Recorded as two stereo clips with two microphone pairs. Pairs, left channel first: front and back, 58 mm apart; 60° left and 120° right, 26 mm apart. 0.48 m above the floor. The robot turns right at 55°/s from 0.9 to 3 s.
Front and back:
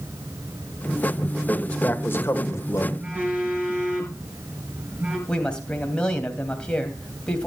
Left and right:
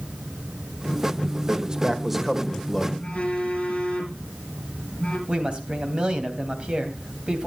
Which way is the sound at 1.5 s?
75° right.